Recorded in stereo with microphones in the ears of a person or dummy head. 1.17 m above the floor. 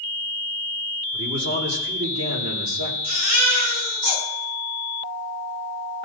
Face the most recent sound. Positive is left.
turn(degrees=-85)